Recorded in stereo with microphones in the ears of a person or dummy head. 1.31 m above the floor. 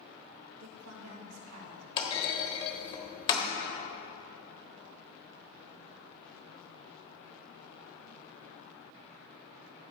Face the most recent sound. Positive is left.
turn(degrees=25)  # may be behind; listen again after turning